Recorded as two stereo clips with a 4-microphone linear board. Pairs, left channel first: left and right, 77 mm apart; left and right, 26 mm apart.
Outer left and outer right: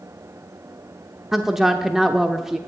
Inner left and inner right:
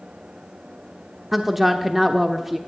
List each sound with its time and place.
1.3 s a woman speaking: 5° right (ahead or behind), 0.9 m